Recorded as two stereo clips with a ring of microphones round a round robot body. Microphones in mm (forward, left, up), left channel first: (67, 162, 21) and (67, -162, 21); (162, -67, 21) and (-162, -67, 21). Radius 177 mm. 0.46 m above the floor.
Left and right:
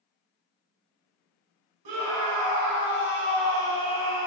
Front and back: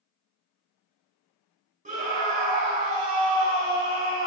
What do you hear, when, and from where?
1.9 s a scream: 115° right, 4 m